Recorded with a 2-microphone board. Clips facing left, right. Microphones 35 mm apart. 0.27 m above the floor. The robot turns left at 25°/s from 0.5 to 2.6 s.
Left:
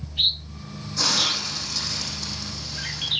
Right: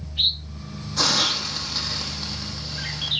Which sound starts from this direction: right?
A hiss, at 1.0 s.